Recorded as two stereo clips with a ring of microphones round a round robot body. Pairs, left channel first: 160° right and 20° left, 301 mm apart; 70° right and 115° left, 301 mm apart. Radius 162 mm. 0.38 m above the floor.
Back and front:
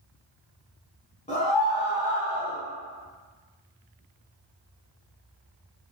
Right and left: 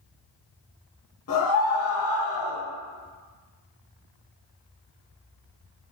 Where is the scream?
95° right, 2.5 m; by 2.6 s 80° right, 3 m.